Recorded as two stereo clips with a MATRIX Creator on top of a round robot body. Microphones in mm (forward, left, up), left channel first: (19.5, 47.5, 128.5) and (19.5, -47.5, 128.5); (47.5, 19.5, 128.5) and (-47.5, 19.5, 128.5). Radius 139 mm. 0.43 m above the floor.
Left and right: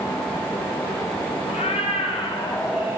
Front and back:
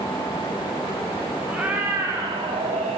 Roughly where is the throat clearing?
I don't hear throat clearing.